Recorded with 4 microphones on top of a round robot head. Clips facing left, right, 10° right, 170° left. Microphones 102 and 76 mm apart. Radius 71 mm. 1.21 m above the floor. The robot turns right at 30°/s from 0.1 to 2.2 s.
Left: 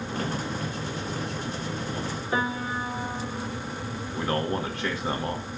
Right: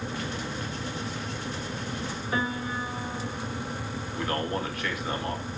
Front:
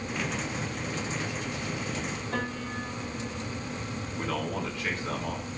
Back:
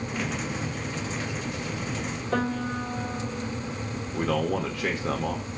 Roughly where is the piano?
Behind left.